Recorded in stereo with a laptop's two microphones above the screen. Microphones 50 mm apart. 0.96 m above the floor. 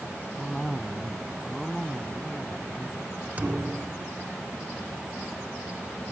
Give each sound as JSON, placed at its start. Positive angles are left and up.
{"t": 0.4, "sound": "a cough", "side_deg": 5}
{"t": 3.4, "sound": "a thud", "side_deg": -30}